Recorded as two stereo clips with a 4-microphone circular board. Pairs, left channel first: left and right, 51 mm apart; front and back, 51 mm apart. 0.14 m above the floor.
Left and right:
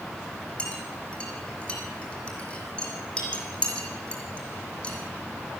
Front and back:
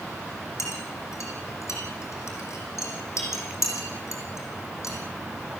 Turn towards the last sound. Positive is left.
turn(degrees=20)